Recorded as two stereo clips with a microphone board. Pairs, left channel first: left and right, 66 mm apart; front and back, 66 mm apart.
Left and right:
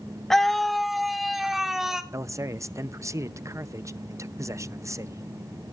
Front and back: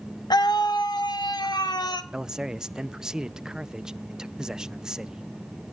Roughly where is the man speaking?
Right.